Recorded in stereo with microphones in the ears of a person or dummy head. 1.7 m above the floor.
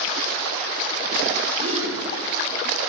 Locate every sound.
1.6 s a gasp: 35° right (ahead or behind), 3 m